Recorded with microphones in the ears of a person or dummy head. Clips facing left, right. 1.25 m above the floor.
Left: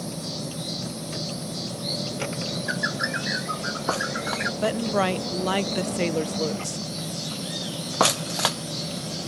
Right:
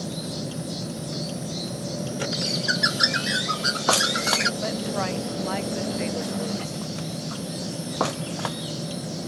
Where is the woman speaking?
55° left (ahead or behind).